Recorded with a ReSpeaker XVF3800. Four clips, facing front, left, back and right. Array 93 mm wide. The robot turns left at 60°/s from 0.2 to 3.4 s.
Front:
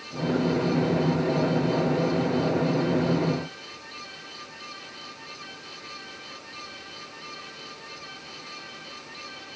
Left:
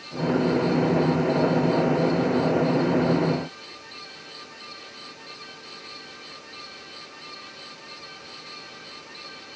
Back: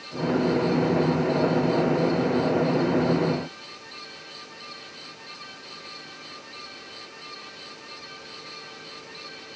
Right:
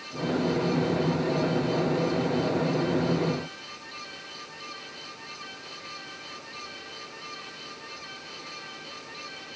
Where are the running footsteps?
No running footsteps in this recording.